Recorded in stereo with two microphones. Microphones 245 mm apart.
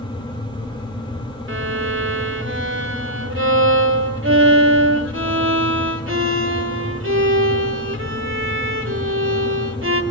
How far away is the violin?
About 2.5 m.